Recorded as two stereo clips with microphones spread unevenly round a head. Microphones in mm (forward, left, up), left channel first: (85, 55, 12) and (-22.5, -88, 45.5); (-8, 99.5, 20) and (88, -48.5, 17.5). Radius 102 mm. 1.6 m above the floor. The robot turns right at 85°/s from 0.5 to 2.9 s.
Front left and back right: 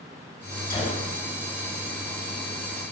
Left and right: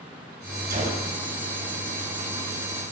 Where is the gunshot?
15° right, 4 m; by 1.1 s 20° left, 4 m.